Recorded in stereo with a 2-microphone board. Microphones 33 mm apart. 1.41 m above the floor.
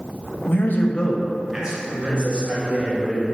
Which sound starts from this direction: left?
A man speaking, at 0.5 s.